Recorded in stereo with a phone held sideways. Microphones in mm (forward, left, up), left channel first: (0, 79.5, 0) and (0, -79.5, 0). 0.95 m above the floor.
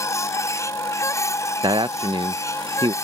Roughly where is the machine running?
Centre.